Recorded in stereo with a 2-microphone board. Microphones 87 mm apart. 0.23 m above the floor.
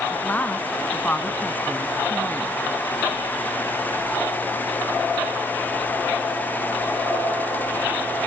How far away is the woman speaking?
About 1.6 m.